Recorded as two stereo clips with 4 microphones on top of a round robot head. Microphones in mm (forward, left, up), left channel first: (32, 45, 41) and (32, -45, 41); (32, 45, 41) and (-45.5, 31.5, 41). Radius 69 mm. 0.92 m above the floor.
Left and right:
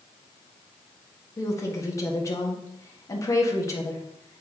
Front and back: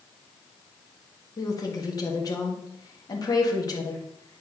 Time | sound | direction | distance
1.4 | a woman speaking | 40° left | 1.7 m